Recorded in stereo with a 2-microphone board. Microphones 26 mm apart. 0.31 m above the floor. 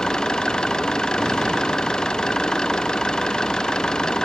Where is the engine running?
35° left (ahead or behind).